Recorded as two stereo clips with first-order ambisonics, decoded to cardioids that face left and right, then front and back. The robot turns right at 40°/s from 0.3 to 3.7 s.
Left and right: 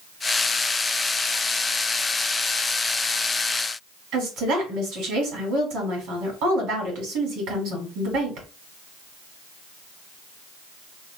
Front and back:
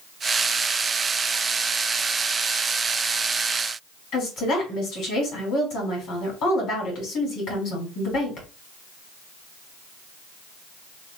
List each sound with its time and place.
4.1 s a woman speaking: 45° right, 1.6 m